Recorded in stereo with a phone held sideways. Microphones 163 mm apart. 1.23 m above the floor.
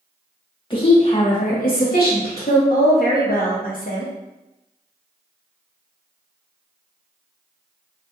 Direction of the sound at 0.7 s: 35° left (ahead or behind).